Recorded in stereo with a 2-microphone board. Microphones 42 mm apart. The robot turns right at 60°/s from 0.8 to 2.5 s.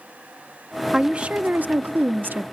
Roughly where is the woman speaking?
Behind right.